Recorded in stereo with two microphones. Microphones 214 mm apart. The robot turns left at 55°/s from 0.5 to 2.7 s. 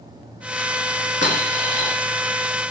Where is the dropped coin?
55° right (ahead or behind), 0.9 m; by 1.9 s 60° right (ahead or behind), 0.9 m.